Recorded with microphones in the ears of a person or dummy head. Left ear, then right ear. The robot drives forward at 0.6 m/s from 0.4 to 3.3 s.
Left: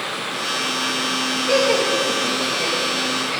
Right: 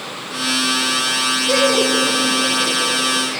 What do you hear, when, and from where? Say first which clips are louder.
1.5 s laughter: right 1 dB; 25° left (ahead or behind), 0.9 m; by 3.4 s 10° left (ahead or behind), 1.9 m